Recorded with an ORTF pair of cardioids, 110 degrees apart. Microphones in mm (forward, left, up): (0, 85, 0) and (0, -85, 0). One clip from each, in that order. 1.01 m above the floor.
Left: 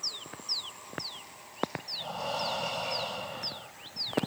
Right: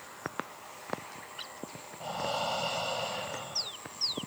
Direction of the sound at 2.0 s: Straight ahead.